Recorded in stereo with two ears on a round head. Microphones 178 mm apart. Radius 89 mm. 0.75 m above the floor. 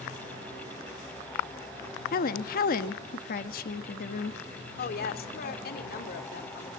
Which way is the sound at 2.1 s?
45° left (ahead or behind).